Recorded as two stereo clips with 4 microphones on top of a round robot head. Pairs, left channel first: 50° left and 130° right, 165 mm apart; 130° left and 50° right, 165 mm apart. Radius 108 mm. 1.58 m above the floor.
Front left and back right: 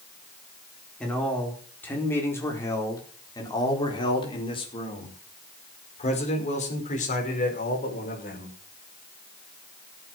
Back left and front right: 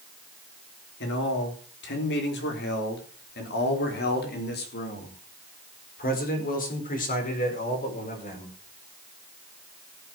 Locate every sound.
1.0 s a man speaking: 135° left, 4.5 m; by 8.6 s 85° left, 5.5 m